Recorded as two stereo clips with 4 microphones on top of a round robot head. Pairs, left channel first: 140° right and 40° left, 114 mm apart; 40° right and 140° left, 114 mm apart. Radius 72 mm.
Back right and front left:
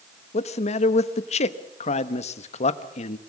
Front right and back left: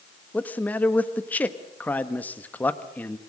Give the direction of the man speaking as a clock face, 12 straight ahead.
4 o'clock.